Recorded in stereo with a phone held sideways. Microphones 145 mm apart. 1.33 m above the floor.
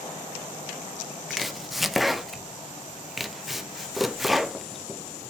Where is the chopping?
Centre (ahead or behind), 0.7 m.